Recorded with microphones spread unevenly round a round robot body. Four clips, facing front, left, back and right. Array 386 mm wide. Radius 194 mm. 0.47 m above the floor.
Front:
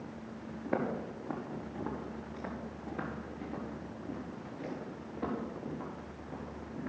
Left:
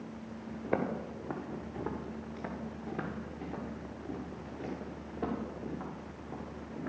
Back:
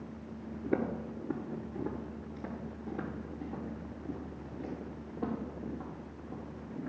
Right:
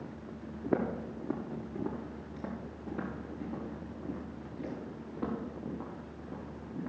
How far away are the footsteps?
About 2.0 m.